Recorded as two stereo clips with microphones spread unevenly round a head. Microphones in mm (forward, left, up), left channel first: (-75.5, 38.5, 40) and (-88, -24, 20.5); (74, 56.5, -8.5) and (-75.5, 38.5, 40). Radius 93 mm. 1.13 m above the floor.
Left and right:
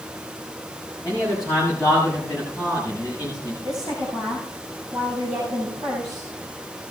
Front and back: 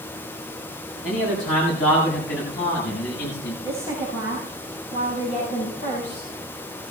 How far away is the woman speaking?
About 6.5 m.